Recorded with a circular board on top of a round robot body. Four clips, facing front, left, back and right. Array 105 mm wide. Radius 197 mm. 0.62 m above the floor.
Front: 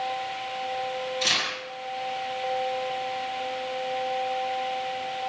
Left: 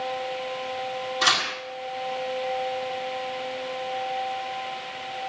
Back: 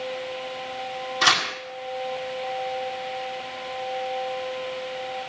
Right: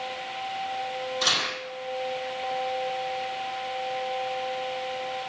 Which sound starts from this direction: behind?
Tearing paper, at 1.2 s.